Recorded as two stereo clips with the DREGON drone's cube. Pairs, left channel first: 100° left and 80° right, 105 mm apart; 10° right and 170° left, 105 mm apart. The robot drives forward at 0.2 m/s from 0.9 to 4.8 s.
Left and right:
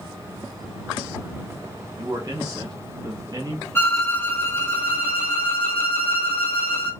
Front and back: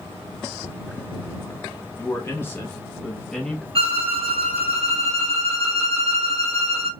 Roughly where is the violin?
Behind.